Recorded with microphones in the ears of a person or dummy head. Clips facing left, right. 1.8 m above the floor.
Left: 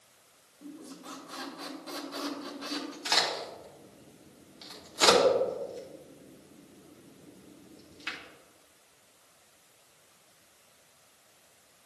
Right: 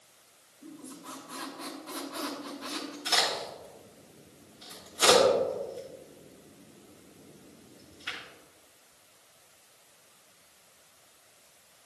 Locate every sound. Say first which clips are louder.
0.6 s a squeak: left 1 dB; 60° left (ahead or behind), 2 m
3.0 s a crack: right 2 dB; 80° left, 2.5 m